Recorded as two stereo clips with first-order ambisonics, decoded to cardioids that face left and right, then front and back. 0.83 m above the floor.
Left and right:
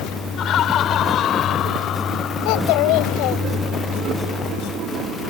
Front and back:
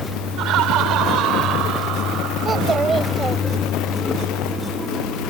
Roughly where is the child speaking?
Left.